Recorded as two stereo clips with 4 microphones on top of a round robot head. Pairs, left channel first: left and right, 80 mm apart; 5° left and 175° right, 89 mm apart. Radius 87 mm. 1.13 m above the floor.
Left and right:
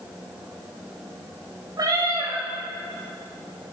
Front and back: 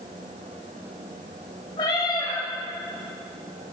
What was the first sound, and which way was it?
A cat meowing, 50° right.